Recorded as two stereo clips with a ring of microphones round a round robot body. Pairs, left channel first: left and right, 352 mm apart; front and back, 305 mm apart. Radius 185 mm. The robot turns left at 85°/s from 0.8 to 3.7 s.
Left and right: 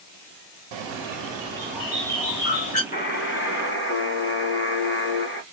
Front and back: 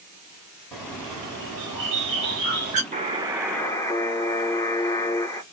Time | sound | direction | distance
0.7 | a bird | 80° right | 1.5 m
2.9 | a buzzer | 140° left | 1.1 m